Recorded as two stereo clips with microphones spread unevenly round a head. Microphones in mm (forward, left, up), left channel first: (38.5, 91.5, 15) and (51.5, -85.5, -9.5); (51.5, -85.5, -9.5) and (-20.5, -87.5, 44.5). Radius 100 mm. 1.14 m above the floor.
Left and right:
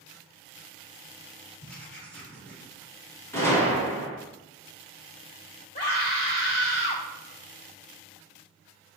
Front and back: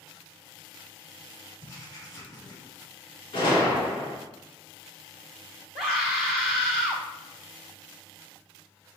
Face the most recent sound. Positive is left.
turn(degrees=150)